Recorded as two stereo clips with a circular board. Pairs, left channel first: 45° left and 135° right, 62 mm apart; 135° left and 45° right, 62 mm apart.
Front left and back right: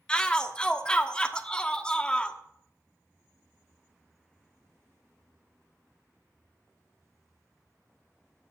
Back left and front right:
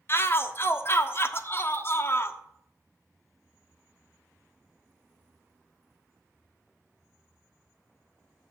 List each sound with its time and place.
0.1 s a shout: 115° left, 1.1 m